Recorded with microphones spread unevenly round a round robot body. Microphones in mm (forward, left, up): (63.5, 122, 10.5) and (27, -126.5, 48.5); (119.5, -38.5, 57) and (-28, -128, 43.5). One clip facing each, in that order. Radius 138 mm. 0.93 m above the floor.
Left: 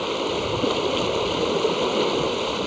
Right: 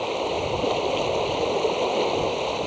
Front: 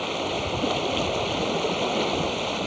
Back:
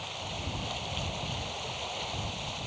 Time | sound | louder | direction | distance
0.0 | running water | left 1 dB, front 13 dB | 15° left | ?